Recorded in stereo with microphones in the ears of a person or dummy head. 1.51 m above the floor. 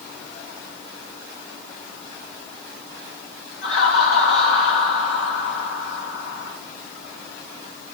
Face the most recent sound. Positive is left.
turn(degrees=90)